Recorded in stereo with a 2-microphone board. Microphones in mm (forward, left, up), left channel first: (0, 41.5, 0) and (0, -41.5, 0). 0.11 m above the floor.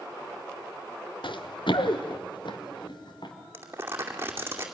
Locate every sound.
1.2 s running footsteps: 80° left, 0.9 m; by 3.3 s 65° left (ahead or behind), 3.5 m
3.5 s crumpling: 30° right (ahead or behind), 2.5 m